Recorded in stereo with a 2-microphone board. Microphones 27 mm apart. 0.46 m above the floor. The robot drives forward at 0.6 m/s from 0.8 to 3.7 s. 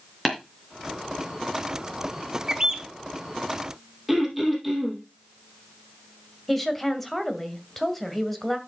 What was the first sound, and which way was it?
Tapping, centre (ahead or behind).